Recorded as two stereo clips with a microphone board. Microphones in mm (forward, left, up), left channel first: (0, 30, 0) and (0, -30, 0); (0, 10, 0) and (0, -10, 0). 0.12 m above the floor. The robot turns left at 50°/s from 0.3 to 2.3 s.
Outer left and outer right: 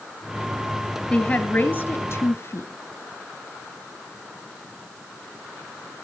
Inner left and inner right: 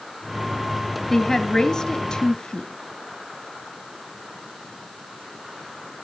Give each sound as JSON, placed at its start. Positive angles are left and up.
{"t": 1.1, "sound": "a woman speaking", "azimuth_deg": 160, "distance_m": 1.5}